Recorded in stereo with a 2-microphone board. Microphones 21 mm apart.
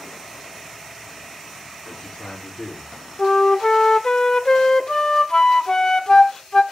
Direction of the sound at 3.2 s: 25° left (ahead or behind).